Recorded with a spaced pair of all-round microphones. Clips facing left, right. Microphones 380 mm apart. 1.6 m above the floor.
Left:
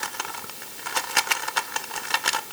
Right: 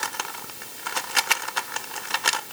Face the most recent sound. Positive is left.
No sound to turn to.